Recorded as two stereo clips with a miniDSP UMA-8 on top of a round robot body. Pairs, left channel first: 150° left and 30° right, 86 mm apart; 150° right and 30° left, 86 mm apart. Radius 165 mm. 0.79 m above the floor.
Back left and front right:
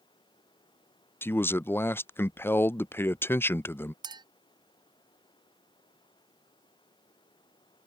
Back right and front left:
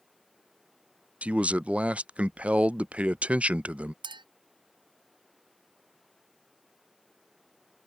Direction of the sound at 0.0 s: 120° left.